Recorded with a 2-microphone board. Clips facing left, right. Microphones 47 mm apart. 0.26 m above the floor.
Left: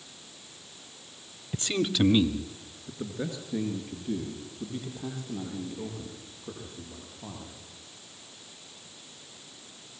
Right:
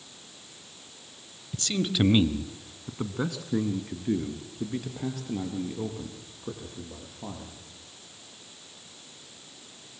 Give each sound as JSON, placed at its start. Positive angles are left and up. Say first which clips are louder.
{"t": 1.5, "sound": "a man speaking", "louder": "left 1 dB", "side_deg": 30, "distance_m": 1.0}